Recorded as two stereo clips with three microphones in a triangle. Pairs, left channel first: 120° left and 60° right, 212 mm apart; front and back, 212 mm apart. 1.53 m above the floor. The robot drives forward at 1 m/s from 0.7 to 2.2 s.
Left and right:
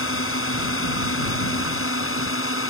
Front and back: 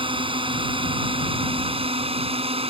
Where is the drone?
115° left.